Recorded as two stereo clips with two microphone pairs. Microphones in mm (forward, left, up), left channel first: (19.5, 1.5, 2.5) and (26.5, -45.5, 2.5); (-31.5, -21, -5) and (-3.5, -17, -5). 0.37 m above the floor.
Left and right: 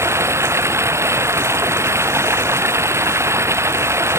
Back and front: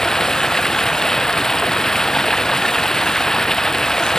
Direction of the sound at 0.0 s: 95° right.